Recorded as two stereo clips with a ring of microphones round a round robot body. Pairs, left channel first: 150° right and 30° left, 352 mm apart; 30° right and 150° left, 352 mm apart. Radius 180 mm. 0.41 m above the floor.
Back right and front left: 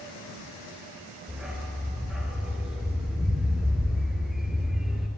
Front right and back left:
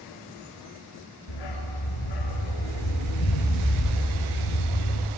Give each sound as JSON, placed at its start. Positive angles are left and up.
{"t": 1.3, "sound": "a dog barking", "azimuth_deg": -60, "distance_m": 2.5}